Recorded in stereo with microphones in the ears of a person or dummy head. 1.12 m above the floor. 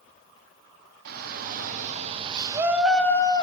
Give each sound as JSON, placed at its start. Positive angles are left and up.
{"t": 1.1, "sound": "a shout", "side_deg": -55, "distance_m": 2.5}